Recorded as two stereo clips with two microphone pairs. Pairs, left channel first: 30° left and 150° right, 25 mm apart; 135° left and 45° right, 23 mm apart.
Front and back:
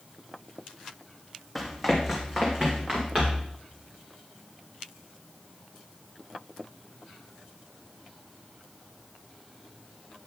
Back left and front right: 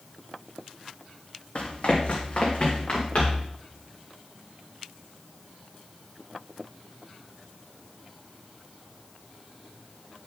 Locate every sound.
1.6 s running footsteps: 135° left, 1.9 m; by 3.5 s 155° left, 3.5 m